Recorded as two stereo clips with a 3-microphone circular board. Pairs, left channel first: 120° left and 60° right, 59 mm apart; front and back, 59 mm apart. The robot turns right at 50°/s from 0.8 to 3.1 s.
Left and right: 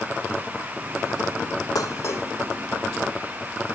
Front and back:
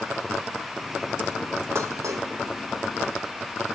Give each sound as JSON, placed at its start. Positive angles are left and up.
{"t": 1.8, "sound": "dishes clattering", "azimuth_deg": 140, "distance_m": 1.5}